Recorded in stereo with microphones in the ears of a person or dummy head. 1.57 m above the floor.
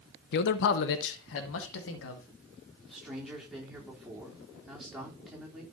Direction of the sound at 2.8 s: 5° right (ahead or behind).